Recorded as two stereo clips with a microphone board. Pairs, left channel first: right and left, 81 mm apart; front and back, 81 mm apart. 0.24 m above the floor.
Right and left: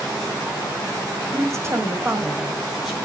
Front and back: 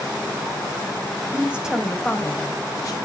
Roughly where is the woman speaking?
Behind left.